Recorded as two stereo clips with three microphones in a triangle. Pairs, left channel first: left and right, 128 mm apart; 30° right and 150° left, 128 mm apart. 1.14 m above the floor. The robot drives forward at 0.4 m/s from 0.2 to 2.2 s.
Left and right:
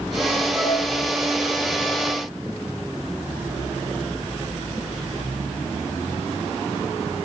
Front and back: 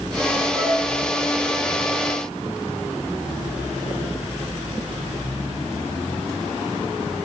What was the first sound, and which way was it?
A flute, 155° right.